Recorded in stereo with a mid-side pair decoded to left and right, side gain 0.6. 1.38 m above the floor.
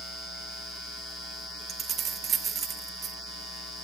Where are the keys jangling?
40° right, 1.1 m.